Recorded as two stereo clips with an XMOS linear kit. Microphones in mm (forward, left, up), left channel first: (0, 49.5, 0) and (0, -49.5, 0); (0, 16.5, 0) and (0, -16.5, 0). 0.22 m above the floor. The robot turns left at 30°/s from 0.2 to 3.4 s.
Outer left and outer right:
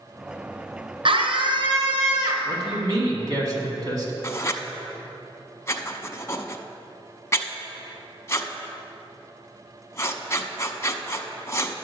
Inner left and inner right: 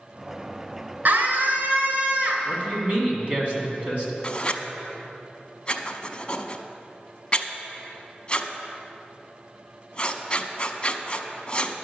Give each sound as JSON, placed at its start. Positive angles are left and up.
{"t": 1.1, "sound": "a scream", "azimuth_deg": -70, "distance_m": 2.5}
{"t": 2.5, "sound": "a man speaking", "side_deg": -45, "distance_m": 2.0}
{"t": 4.2, "sound": "writing", "side_deg": 30, "distance_m": 0.7}